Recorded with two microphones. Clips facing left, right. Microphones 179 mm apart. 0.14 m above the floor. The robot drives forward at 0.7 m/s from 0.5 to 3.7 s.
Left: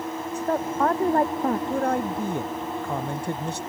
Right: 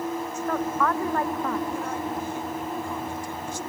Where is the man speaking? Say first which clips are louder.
Left 5 dB; 55° left (ahead or behind); by 3.6 s 65° left (ahead or behind).